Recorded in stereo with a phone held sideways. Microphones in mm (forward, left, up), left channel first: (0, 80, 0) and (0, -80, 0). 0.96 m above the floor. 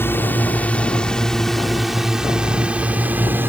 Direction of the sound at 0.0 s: 10° left (ahead or behind).